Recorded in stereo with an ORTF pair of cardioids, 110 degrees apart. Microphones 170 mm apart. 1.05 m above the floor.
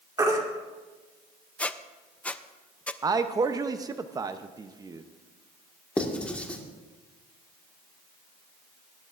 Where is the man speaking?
25° right, 0.7 m.